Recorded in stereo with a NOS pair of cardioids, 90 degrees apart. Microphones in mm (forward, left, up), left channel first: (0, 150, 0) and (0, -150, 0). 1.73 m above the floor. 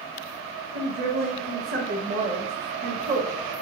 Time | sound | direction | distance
0.8 | a woman speaking | 30° right | 0.7 m